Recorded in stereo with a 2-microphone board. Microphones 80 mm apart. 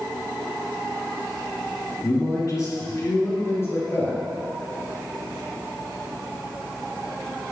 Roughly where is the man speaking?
Left.